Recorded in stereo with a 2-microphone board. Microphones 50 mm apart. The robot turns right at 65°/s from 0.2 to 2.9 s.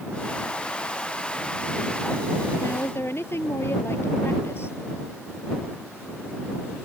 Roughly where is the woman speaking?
Left.